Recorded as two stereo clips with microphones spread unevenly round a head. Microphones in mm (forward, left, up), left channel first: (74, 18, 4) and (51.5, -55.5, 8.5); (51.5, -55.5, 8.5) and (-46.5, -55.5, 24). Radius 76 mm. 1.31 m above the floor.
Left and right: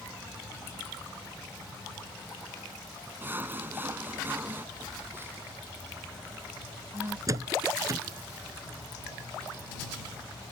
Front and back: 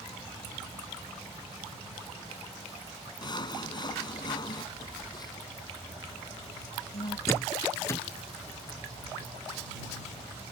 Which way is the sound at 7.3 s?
60° right.